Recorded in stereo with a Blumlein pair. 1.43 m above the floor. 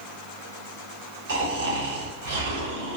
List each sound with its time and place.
1.3 s snoring: 60° right, 0.8 m